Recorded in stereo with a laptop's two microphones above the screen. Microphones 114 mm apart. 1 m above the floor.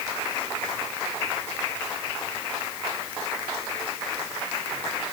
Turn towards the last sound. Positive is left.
No sound to turn to.